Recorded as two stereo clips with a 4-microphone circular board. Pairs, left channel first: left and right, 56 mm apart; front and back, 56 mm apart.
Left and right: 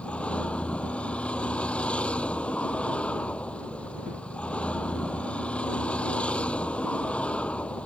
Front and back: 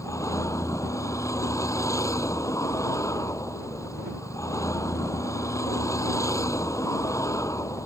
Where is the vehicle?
20° left.